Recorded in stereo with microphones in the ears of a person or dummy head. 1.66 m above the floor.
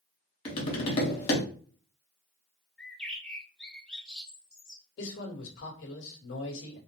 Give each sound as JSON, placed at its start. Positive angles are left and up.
{"t": 0.5, "sound": "tapping", "side_deg": 35, "distance_m": 1.1}
{"t": 2.8, "sound": "a bird", "side_deg": 5, "distance_m": 0.8}
{"t": 5.0, "sound": "a man speaking", "side_deg": 75, "distance_m": 1.6}